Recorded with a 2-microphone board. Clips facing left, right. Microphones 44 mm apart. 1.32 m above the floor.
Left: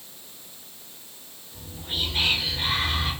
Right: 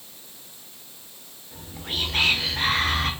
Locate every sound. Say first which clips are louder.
1.5 s whispering: right 1 dB; 75° right (ahead or behind), 0.6 m